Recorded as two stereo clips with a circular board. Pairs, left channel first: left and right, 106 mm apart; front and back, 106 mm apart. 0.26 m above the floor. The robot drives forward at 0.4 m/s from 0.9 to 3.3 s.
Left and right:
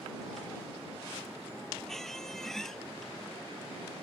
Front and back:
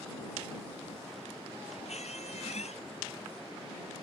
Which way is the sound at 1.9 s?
5° left.